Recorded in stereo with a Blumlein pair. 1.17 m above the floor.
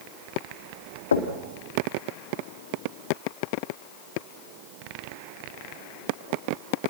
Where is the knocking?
70° left, 1.9 m.